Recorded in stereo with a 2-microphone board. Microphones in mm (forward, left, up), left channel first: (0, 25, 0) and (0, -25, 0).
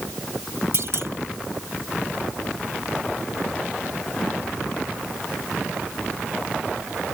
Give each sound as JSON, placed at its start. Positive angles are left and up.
{"t": 0.7, "sound": "a clunk", "side_deg": -65}